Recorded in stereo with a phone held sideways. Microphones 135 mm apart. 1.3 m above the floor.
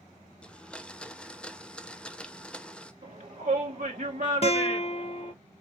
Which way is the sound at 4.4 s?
50° left (ahead or behind).